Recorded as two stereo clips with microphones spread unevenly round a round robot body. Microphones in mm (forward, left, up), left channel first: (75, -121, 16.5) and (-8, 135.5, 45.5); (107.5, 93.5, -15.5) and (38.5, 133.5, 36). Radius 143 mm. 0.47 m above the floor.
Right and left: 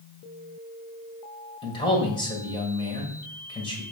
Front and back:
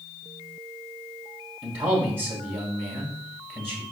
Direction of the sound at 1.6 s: 140° right.